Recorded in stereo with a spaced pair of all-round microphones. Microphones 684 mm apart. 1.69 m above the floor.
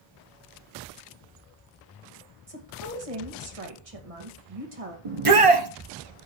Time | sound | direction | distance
2.5 | a woman speaking | 55° right (ahead or behind) | 2 m
5.0 | a shout | 50° right (ahead or behind) | 1.0 m